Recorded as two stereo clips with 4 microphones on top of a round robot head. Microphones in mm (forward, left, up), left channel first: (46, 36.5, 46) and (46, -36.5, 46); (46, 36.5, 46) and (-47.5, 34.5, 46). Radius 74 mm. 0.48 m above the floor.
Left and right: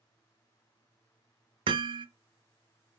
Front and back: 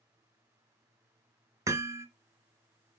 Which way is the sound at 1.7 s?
115° right.